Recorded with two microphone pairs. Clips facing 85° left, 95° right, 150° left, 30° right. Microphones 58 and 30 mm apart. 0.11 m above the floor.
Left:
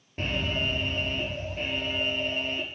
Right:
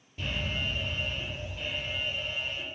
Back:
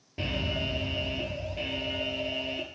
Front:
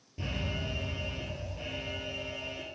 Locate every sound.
0.2 s an alarm: 110° left, 2.5 m